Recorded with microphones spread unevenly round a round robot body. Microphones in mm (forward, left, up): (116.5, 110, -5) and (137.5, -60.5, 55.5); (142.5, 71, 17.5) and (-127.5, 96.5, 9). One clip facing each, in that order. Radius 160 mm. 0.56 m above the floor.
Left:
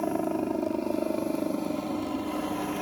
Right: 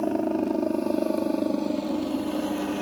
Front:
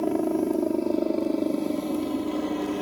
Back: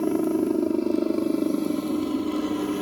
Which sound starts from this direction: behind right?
A helicopter, at 0.0 s.